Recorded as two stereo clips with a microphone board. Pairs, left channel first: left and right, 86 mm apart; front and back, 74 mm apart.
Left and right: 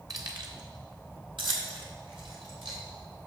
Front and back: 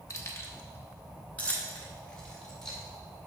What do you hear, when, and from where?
0.1 s keys jangling: 45° right, 1.1 m; by 2.8 s 85° right, 2.5 m